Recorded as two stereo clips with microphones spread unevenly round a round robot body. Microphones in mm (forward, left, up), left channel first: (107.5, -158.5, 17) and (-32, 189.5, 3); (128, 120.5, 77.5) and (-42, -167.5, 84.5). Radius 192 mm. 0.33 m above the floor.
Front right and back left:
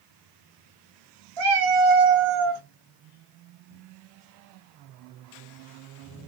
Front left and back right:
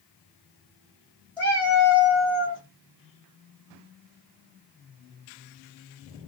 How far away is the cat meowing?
About 1.1 m.